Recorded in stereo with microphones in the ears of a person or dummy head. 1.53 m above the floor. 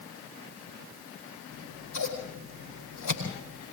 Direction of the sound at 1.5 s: 85° left.